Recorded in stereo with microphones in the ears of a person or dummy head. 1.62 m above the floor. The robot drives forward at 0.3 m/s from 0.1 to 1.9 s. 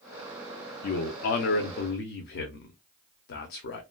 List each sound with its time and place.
0.8 s a man speaking: 50° left (ahead or behind), 0.6 m